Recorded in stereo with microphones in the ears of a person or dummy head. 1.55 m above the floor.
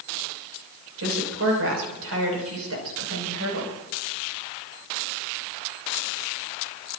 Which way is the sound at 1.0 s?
80° right.